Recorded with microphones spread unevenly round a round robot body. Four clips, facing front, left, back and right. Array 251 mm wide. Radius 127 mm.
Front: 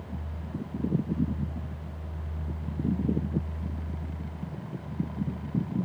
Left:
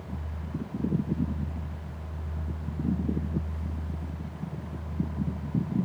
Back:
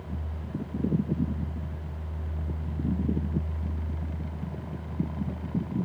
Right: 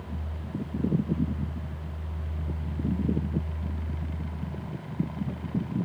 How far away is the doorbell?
I don't hear a doorbell.